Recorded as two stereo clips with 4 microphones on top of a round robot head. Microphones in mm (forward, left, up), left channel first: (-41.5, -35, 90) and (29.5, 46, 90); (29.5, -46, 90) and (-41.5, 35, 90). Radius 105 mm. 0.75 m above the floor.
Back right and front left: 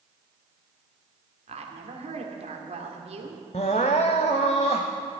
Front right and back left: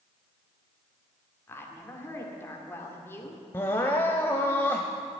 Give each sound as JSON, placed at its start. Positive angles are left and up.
{"t": 1.5, "sound": "a woman speaking", "azimuth_deg": 20, "distance_m": 2.0}
{"t": 3.5, "sound": "crying", "azimuth_deg": -110, "distance_m": 0.6}